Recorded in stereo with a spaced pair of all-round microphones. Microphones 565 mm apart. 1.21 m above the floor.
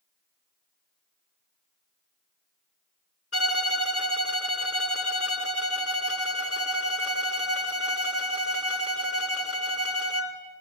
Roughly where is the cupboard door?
I don't hear a cupboard door.